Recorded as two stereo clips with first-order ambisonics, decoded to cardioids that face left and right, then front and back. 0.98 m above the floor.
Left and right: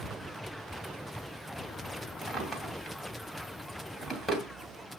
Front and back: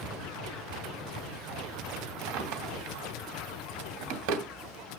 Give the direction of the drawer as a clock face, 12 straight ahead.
6 o'clock.